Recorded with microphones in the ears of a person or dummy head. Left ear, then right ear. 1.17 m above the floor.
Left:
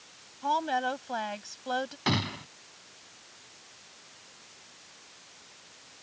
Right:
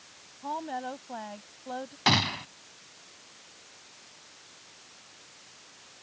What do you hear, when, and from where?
0.4 s a woman speaking: 75° left (ahead or behind)
2.1 s a gunshot: 25° right (ahead or behind)